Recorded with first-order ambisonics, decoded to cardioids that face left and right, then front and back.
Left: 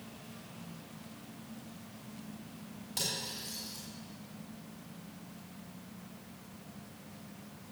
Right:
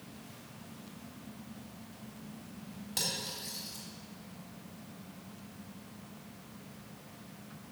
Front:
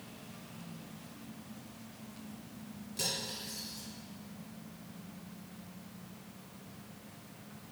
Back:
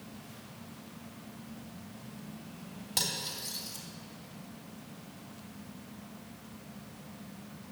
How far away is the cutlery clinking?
About 3 m.